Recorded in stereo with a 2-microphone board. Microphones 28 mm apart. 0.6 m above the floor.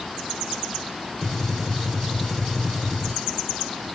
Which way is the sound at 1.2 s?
Centre (ahead or behind).